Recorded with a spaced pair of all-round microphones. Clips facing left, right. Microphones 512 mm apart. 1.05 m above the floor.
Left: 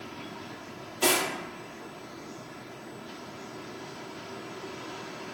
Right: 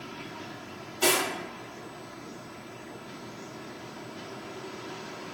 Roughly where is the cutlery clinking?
Centre.